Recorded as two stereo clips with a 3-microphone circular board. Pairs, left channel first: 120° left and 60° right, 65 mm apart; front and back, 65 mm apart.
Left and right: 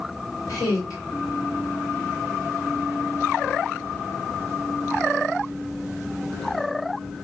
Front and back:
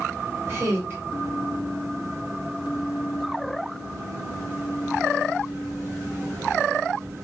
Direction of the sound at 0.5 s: 125° left.